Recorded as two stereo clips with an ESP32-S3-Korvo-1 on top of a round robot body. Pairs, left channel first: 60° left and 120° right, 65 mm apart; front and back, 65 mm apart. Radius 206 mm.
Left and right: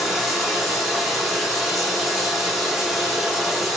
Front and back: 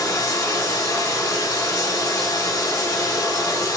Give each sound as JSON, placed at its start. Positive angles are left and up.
{"t": 0.0, "sound": "running water", "azimuth_deg": -30, "distance_m": 6.0}